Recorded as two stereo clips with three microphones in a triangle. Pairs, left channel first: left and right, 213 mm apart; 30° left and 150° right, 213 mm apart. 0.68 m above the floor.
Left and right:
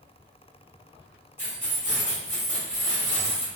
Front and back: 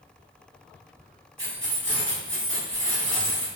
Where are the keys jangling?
170° right, 1.5 m.